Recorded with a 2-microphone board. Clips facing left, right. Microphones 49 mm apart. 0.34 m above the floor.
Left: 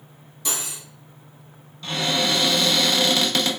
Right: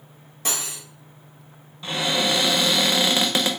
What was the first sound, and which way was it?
Cutlery clinking, 45° right (ahead or behind).